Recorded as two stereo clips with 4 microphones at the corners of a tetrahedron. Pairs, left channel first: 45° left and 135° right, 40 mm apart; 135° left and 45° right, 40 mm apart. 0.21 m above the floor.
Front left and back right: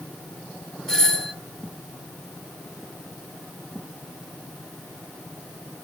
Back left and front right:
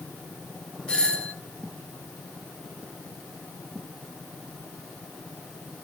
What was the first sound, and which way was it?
A doorbell, 105° left.